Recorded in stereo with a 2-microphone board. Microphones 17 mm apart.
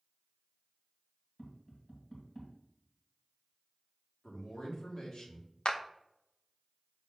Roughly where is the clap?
Left.